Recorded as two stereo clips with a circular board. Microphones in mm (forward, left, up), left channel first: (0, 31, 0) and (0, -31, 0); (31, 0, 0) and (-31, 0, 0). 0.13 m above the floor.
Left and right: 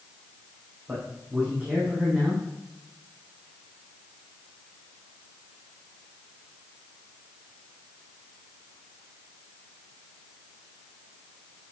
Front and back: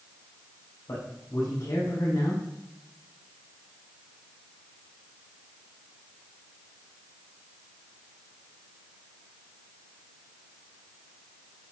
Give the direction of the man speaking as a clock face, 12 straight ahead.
1 o'clock.